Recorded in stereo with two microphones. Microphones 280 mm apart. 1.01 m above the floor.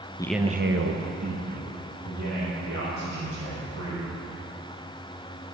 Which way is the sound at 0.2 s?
15° left (ahead or behind).